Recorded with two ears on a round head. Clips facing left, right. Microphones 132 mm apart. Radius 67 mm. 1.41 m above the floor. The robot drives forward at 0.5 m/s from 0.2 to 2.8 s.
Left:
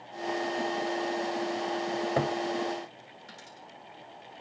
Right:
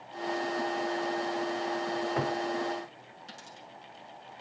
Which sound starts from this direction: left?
A cupboard door, at 1.9 s.